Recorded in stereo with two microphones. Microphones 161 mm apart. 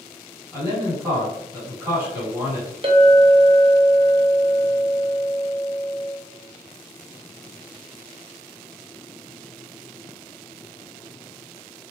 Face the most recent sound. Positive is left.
turn(degrees=-35)  # may be behind; listen again after turning